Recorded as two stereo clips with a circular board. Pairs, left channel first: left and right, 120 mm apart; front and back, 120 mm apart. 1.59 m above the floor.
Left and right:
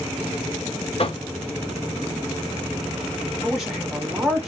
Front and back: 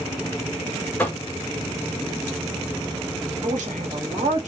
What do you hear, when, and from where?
1.0 s knocking: 70° left, 0.9 m
3.4 s a woman speaking: 175° right, 1.7 m